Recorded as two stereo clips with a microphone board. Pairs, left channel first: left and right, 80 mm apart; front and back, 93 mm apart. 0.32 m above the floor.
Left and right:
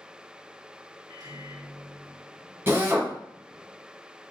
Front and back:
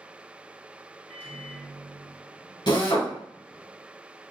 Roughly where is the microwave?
Ahead right.